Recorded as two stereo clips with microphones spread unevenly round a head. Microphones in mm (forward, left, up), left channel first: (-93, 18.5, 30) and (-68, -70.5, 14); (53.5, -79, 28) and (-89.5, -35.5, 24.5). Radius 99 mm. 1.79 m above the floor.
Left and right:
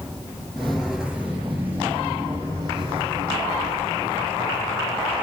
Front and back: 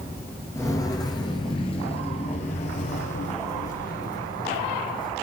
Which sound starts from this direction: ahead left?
Footsteps, at 0.6 s.